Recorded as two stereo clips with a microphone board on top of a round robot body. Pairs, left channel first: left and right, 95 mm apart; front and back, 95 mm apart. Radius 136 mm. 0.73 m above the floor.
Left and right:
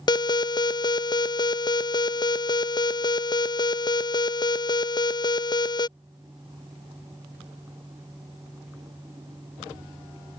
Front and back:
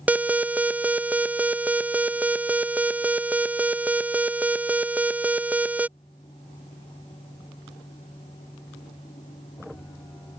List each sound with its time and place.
0.1 s an alarm: 110° left